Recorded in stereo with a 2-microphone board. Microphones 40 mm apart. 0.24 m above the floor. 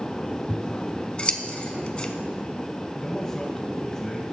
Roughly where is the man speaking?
Centre.